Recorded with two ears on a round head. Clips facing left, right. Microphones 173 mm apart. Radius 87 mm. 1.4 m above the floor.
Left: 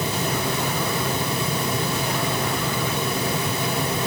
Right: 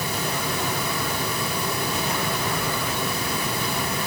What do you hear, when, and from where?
Only background noise.